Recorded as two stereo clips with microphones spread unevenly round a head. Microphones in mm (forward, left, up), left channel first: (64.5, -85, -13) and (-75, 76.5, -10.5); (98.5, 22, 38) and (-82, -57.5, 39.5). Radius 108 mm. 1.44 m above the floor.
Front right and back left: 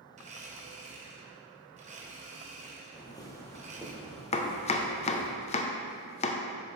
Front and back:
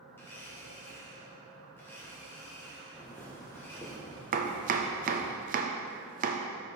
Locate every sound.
0.2 s a blender: 100° left, 0.8 m
2.9 s footsteps: 50° right, 1.5 m; by 5.3 s 65° left, 1.7 m
4.3 s chopping: 110° right, 0.5 m